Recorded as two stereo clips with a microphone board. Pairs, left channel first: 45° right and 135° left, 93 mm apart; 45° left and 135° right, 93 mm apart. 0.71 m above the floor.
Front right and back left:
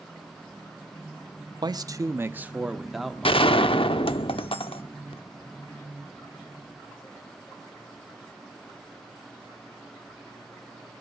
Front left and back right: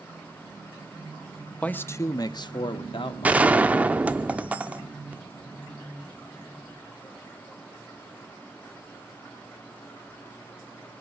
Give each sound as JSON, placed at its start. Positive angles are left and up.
{"t": 1.6, "sound": "a man speaking", "azimuth_deg": 120, "distance_m": 0.8}
{"t": 3.2, "sound": "a gunshot", "azimuth_deg": -60, "distance_m": 0.8}